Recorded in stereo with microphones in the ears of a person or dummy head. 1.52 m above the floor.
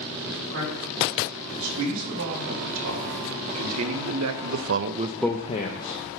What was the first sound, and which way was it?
A man speaking, 70° right (ahead or behind).